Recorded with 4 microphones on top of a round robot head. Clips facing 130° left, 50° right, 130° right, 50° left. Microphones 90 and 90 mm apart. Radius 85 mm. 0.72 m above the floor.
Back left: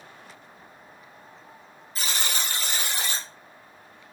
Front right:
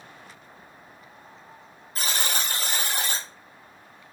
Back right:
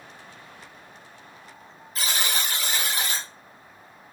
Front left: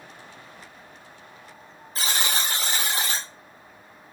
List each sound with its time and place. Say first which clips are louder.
1.9 s a buzzer: front right 2 dB, front left 1 dB; 10° right, 0.9 m